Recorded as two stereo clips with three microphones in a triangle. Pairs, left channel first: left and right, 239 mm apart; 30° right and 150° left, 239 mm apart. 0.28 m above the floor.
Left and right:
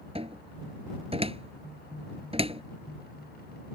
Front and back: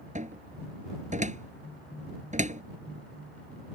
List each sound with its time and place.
0.1 s a cupboard door: 155° right